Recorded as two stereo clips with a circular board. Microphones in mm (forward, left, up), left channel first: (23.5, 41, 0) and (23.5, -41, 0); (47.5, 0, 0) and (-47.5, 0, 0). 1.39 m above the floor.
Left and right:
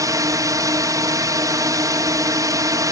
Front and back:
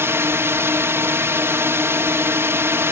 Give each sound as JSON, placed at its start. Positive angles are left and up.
{"t": 0.0, "sound": "a drone", "azimuth_deg": -120}